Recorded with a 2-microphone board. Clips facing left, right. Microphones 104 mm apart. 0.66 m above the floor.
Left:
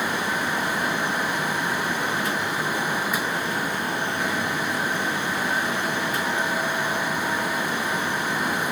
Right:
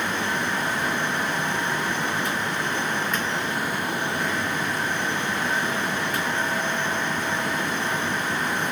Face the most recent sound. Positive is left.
No sound to turn to.